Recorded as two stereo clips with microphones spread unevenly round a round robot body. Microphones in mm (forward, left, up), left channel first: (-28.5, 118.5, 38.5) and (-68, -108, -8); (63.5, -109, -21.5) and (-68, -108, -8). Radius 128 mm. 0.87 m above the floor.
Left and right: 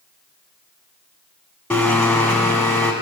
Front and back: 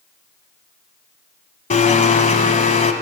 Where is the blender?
10° left, 1.1 m.